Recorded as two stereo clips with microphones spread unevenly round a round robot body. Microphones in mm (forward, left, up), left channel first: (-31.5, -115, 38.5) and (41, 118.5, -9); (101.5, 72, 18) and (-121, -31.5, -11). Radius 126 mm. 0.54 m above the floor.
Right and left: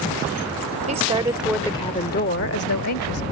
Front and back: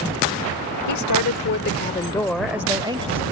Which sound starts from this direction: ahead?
A woman speaking, at 0.9 s.